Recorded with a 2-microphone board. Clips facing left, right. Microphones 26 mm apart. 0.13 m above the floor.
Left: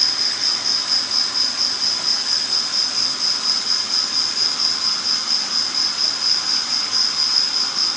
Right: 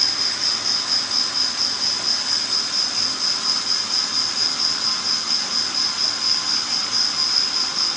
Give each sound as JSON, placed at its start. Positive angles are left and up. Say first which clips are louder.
{"t": 0.0, "sound": "an insect", "louder": "left 2 dB", "side_deg": 15}